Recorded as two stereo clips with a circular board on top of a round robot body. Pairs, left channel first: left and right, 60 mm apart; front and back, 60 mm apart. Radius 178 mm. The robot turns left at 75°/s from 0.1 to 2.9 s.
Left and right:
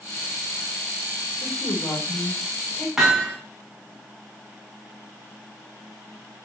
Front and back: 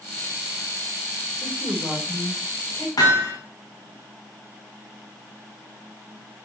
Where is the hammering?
5° right, 5.5 m.